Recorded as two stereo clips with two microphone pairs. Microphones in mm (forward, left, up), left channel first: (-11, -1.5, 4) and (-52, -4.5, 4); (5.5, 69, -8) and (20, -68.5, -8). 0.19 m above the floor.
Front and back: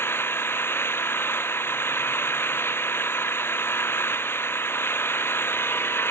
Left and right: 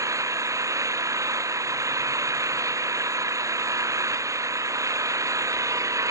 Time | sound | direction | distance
0.0 | an engine running | 15° right | ?